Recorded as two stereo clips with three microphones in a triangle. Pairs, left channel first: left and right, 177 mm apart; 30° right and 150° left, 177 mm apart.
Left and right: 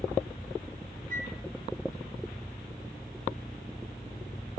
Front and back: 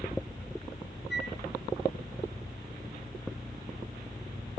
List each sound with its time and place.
1.1 s a flute: 45° right, 1.2 m